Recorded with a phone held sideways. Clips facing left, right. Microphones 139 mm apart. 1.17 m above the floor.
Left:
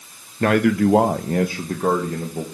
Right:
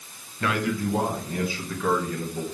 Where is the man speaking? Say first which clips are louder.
Left 9 dB; 45° left (ahead or behind), 0.7 m; by 2.5 s 30° left (ahead or behind), 1.9 m.